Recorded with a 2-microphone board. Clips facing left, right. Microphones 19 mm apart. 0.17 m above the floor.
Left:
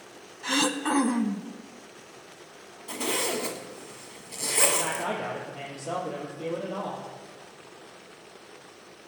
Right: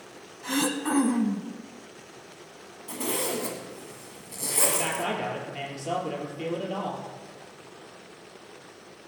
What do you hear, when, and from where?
0.4 s throat clearing: 25° left (ahead or behind), 0.6 m
2.9 s a zipper: 20° left (ahead or behind), 1.4 m
4.7 s a man speaking: 70° right (ahead or behind), 4.5 m